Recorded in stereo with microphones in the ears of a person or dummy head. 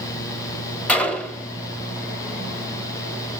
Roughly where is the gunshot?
Centre.